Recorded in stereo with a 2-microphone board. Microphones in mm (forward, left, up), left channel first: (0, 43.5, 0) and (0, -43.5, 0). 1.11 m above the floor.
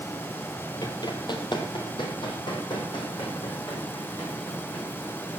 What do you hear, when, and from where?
0.8 s running footsteps: 45° left (ahead or behind), 1.7 m; by 5.4 s 60° left (ahead or behind), 8 m